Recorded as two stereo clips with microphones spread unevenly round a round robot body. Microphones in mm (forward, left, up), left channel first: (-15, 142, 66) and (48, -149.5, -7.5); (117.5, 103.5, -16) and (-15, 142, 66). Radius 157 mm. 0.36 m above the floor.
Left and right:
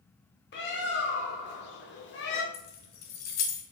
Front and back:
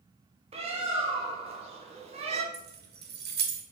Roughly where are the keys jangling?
Behind left.